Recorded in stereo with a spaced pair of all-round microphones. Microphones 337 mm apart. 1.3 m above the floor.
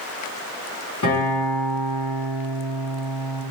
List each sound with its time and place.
1.0 s a guitar: 55° left (ahead or behind), 0.9 m